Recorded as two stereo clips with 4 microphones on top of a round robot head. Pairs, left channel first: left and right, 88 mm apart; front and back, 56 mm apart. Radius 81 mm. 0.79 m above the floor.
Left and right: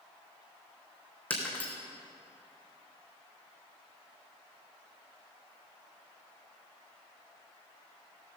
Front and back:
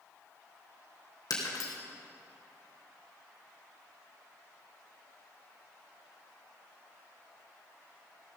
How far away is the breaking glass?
About 3 m.